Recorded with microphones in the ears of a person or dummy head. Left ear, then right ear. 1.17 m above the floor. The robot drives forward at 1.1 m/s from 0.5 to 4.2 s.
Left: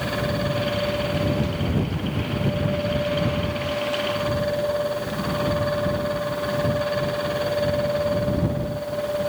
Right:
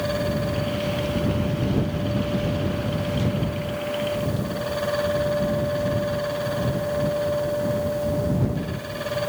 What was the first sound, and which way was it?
Only background noise.